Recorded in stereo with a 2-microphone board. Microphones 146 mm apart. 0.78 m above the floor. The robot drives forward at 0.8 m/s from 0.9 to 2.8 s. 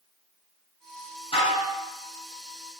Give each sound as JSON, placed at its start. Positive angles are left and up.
{"t": 1.3, "sound": "dishes clattering", "side_deg": 40, "distance_m": 6.0}